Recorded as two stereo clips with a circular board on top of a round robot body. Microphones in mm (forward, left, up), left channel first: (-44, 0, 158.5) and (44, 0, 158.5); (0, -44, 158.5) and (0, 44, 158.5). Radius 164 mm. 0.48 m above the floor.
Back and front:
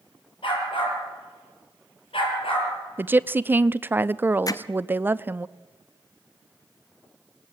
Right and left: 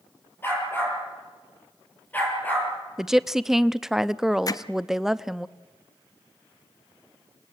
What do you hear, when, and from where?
0.4 s a dog barking: 155° right, 7.5 m; by 2.7 s 165° right, 6.5 m
3.0 s a woman speaking: 10° left, 0.8 m
4.5 s hammering: 135° right, 1.1 m